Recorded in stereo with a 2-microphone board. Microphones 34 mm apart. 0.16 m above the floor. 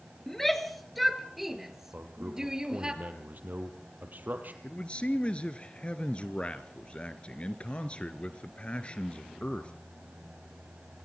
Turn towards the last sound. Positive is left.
turn(degrees=35)  # may be behind; listen again after turning